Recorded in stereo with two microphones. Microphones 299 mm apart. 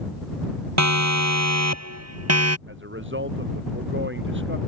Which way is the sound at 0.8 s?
65° right (ahead or behind).